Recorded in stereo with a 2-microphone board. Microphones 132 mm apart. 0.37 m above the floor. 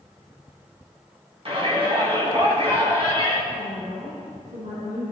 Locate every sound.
1.4 s a shout: 45° right (ahead or behind), 3 m
3.5 s a woman speaking: 70° right (ahead or behind), 3 m